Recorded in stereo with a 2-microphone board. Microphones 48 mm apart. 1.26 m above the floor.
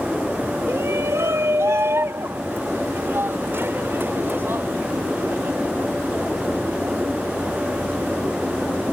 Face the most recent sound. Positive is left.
turn(degrees=-50)  # may be behind; listen again after turning